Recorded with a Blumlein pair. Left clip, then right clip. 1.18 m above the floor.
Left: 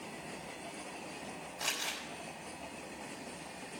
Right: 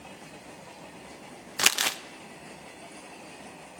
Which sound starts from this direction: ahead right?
Crumpling, at 1.6 s.